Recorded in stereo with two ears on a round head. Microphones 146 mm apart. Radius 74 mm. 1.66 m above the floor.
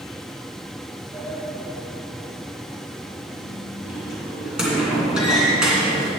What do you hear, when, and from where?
1.1 s a sliding door: 5° right (ahead or behind), 3 m